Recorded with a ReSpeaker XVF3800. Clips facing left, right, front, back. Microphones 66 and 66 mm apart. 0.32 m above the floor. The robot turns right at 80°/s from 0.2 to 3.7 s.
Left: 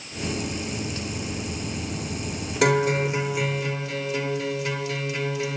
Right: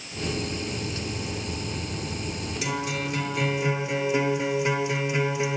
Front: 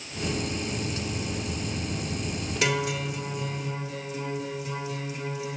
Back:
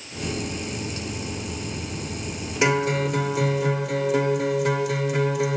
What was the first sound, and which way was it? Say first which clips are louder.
A guitar: left 10 dB, back 7 dB; 115° left.